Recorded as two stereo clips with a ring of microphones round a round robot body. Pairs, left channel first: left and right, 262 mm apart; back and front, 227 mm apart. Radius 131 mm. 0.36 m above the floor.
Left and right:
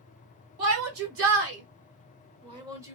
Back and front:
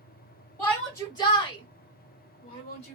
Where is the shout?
100° right, 1.7 m; by 2.9 s 165° right, 1.3 m.